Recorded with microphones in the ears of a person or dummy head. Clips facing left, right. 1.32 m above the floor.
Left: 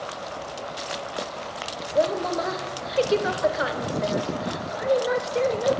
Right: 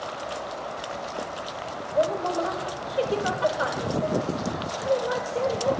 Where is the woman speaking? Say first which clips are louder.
Left 1 dB; 30° left (ahead or behind), 0.7 m.